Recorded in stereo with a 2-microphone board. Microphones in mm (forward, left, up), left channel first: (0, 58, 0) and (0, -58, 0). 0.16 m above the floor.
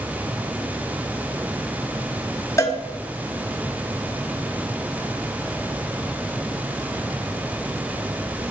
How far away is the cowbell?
About 1.7 m.